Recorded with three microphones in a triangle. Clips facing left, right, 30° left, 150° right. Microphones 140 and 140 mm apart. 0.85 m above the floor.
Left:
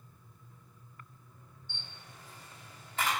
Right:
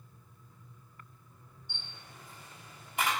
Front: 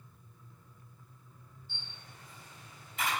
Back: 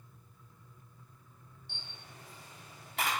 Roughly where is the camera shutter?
Behind.